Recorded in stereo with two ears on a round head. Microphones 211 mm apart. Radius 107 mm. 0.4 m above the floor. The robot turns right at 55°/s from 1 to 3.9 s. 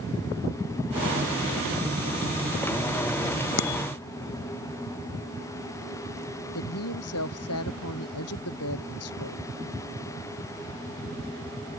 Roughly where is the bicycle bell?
Left.